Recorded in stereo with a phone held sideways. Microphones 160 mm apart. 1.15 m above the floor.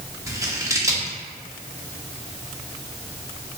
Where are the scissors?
20° right (ahead or behind), 0.7 m.